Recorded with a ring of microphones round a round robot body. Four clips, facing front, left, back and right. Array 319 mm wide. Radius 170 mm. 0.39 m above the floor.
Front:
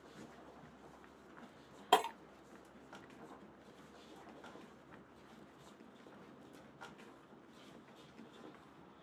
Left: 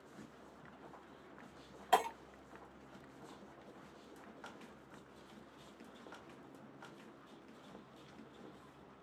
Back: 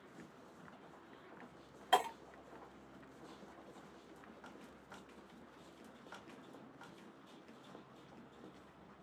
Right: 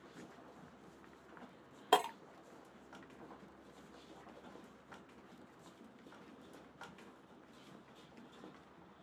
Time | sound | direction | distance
1.9 | breaking glass | 35° right | 0.8 m